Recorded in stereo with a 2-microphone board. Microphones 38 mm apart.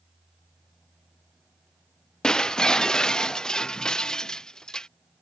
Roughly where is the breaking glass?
Centre.